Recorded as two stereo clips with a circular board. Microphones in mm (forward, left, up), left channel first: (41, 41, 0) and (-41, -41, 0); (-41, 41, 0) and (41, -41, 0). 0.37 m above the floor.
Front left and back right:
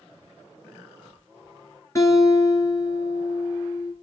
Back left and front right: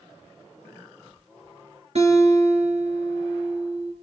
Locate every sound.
1.9 s a guitar: 20° right, 4 m